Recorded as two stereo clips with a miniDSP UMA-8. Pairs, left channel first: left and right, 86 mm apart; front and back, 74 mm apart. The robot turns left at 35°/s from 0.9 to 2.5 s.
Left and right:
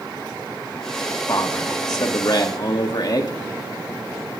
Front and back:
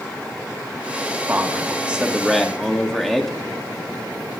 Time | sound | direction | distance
1.3 | a man speaking | 130° left | 1.7 m